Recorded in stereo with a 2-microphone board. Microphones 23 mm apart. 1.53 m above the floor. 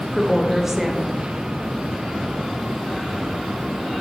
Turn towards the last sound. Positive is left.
turn(degrees=-15)  # may be behind; listen again after turning